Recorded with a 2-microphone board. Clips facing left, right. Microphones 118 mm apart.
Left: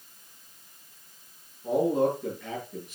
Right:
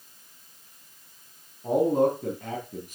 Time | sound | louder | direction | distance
1.6 | a man speaking | right 2 dB | 40° right (ahead or behind) | 3 m